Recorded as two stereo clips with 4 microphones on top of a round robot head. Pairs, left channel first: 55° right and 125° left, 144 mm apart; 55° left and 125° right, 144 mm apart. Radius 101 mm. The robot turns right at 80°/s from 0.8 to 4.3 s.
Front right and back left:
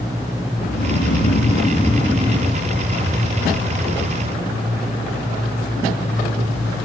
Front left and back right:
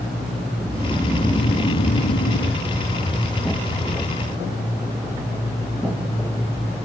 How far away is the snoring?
About 7 m.